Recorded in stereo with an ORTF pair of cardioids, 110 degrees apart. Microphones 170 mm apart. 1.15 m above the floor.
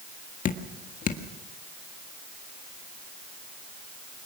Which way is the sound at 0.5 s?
50° left.